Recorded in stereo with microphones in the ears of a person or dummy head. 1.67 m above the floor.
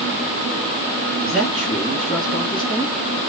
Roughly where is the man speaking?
Centre.